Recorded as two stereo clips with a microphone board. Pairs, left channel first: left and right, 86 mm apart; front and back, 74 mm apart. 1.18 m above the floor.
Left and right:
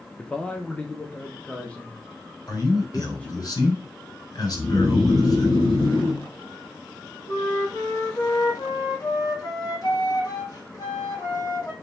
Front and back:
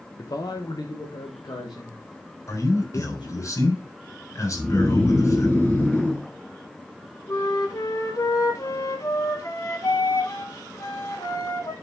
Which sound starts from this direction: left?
Snoring, at 4.5 s.